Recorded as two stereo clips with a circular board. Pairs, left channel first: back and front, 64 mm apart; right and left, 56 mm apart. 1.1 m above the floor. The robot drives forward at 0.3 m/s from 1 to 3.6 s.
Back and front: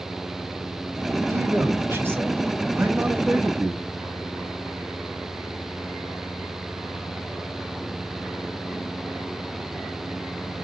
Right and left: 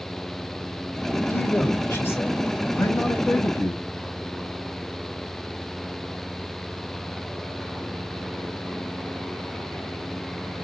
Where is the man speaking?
40° right, 1.2 m; by 3.8 s 75° right, 0.9 m.